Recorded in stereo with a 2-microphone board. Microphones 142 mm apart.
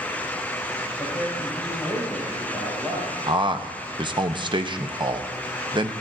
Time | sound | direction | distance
1.0 | a man speaking | 15° right (ahead or behind) | 5 m
3.3 | a man speaking | 35° right (ahead or behind) | 0.7 m